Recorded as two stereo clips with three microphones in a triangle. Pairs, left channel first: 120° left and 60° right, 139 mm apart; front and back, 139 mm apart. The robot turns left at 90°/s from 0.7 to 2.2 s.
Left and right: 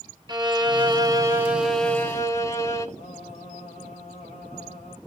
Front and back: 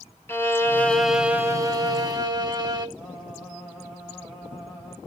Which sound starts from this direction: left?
Singing, at 3.0 s.